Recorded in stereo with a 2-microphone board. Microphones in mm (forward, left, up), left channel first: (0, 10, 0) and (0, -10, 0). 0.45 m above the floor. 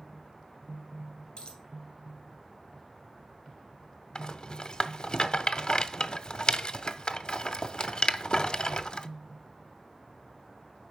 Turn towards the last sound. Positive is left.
turn(degrees=40)  # may be behind; listen again after turning